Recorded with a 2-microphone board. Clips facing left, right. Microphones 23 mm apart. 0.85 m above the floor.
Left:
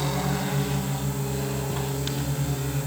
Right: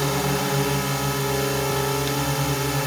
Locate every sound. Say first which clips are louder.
0.0 s a drone: right 4 dB; 65° right (ahead or behind)